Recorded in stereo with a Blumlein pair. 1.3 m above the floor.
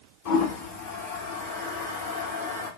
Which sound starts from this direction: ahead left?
A toilet flushing, at 0.2 s.